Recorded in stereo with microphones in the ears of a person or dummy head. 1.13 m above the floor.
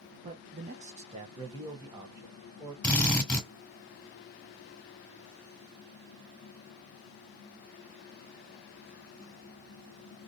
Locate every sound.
0.2 s a man speaking: 35° right (ahead or behind), 0.5 m; by 2.7 s 15° right (ahead or behind), 1.4 m
2.8 s a drill: 5° left (ahead or behind), 1.1 m